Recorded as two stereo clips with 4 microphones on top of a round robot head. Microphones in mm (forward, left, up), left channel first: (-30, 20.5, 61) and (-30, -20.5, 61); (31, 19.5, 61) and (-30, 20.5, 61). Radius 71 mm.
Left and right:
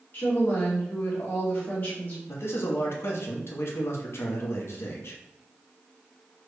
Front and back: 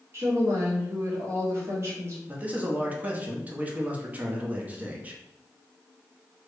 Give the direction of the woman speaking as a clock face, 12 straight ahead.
8 o'clock.